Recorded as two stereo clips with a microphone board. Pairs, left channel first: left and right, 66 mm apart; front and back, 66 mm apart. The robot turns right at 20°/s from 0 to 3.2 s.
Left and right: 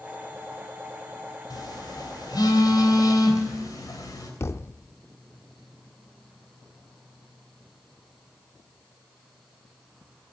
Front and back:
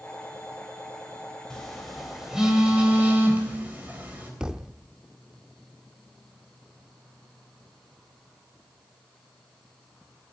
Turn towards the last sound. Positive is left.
turn(degrees=105)